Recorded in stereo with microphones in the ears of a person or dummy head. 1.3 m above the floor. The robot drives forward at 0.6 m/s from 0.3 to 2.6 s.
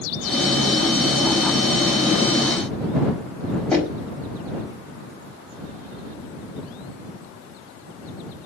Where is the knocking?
10° left (ahead or behind), 4.5 m.